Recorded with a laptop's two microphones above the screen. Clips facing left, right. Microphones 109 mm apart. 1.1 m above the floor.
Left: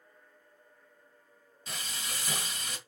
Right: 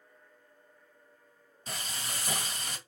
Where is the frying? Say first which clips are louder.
Right 1 dB; 35° right (ahead or behind), 1.7 m.